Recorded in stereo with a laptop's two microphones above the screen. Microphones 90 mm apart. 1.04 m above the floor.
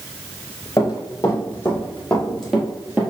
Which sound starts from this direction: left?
Running footsteps, at 0.8 s.